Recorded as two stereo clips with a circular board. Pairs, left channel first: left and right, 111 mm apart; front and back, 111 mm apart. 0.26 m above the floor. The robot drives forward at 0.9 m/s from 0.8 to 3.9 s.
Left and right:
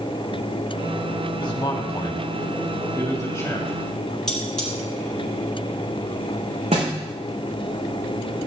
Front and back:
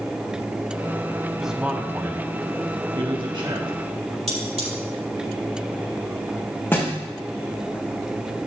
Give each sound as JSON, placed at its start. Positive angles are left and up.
{"t": 1.4, "sound": "a man speaking", "azimuth_deg": 95, "distance_m": 1.4}
{"t": 4.3, "sound": "cutlery clinking", "azimuth_deg": 175, "distance_m": 5.0}
{"t": 6.7, "sound": "a thud", "azimuth_deg": -70, "distance_m": 5.5}